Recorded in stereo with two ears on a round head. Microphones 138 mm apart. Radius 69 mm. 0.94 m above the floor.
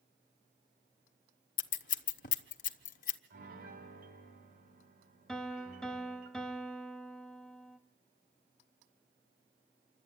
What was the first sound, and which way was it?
Scissors, 55° left (ahead or behind).